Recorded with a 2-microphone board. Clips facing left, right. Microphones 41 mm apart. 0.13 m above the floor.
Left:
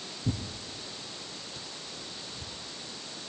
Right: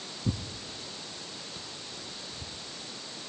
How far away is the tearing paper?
About 1.6 m.